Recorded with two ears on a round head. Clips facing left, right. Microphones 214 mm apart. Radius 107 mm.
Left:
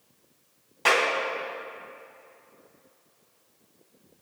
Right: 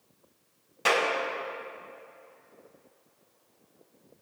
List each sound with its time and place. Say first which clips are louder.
0.8 s a clap: left 1 dB; 10° right (ahead or behind), 2.5 m